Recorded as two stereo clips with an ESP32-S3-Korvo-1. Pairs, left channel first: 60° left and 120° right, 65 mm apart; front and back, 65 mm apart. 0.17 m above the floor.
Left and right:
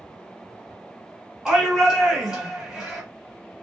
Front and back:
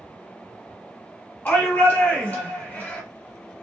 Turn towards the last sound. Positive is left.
turn(degrees=-45)